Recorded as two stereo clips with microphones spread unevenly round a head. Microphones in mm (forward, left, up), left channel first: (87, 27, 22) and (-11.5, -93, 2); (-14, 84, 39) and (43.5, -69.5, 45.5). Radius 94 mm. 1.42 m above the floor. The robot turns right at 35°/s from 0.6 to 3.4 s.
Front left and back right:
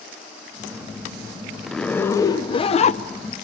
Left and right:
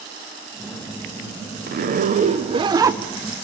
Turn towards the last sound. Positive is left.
turn(degrees=20)